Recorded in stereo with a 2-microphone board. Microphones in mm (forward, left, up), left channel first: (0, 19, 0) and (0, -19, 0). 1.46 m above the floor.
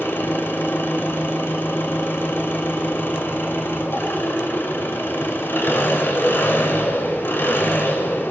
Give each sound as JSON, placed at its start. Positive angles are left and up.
{"t": 0.0, "sound": "an engine running", "side_deg": 75, "distance_m": 7.0}